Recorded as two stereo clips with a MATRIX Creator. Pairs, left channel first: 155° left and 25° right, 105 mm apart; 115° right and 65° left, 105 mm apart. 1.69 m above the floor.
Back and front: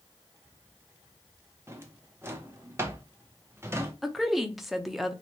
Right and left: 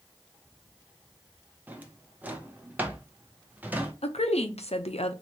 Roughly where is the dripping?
I don't hear dripping.